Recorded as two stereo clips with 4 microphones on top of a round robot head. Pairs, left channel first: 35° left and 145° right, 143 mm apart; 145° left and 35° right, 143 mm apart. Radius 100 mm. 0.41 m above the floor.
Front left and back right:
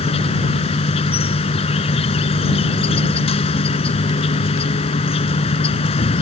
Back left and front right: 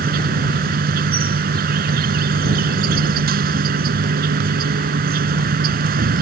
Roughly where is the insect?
Ahead.